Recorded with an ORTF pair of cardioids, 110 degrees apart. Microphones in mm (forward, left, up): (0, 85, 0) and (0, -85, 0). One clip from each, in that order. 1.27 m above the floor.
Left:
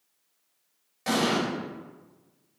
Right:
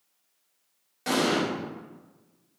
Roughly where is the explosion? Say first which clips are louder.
Right 1 dB; ahead.